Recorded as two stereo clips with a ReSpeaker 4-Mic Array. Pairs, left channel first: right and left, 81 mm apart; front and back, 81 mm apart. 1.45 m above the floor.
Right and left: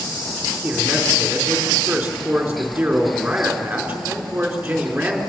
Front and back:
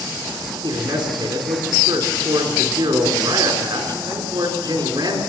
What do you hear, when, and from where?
0.6 s a man speaking: 170° left, 4 m